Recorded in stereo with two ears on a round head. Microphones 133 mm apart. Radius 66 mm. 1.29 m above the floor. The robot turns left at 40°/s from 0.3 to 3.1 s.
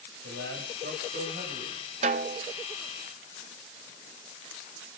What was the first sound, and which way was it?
A man speaking, 80° right.